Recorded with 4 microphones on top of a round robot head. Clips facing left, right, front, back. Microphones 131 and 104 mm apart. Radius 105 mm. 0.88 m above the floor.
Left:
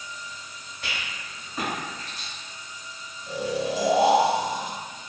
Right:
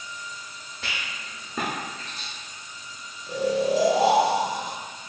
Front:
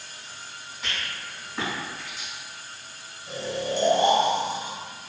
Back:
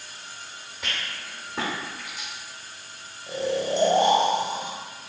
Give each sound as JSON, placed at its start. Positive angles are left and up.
{"t": 0.8, "sound": "a rattle", "azimuth_deg": -120, "distance_m": 0.8}
{"t": 3.3, "sound": "snoring", "azimuth_deg": 170, "distance_m": 0.6}